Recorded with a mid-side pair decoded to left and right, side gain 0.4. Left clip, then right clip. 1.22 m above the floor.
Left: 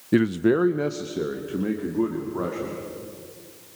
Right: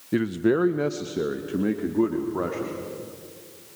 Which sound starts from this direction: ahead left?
A man speaking, at 0.1 s.